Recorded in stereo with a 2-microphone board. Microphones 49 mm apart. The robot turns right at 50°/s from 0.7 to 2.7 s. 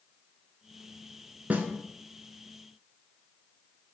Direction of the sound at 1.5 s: 30° right (ahead or behind).